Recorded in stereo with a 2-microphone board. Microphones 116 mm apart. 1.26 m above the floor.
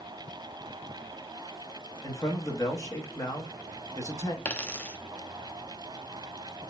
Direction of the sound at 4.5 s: 15° left (ahead or behind).